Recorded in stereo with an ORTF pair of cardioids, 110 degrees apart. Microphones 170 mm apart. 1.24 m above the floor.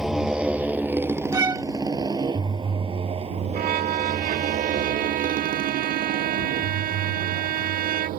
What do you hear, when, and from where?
0.0 s a motorcycle: 5° right; by 8.2 s 75° right
1.3 s a violin: 25° right
3.5 s a violin: 65° right